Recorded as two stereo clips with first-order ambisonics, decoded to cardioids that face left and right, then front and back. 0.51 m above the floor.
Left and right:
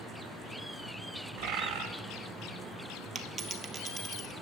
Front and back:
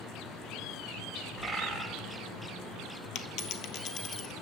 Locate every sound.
1.4 s a bird: 80° right, 1.4 m
3.1 s a dropped coin: 30° right, 0.7 m